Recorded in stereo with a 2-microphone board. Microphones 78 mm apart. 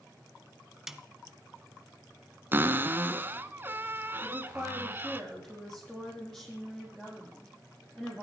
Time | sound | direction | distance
0.9 | a snare drum | 5° right (ahead or behind) | 1.0 m
2.5 | a cupboard door | 30° right (ahead or behind) | 0.8 m
4.2 | a woman speaking | 5° left (ahead or behind) | 7.5 m